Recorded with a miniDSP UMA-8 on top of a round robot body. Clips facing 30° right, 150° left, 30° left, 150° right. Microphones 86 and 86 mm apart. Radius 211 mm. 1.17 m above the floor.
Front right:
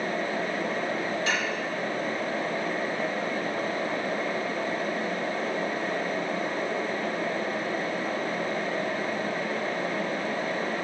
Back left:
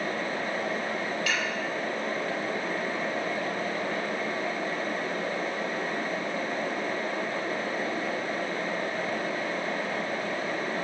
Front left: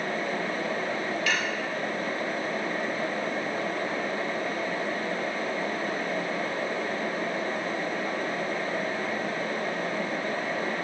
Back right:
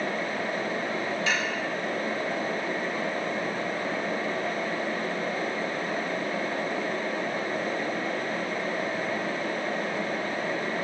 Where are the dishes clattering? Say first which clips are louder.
Front right 2 dB, even; 90° right, 5.5 m.